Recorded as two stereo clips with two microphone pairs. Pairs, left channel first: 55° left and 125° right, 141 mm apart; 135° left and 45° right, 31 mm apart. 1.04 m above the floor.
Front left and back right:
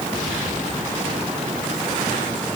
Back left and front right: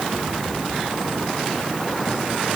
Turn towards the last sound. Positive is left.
No sound to turn to.